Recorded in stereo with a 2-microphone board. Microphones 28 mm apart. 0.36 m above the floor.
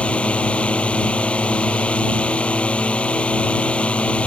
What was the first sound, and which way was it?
A drone, 45° left (ahead or behind).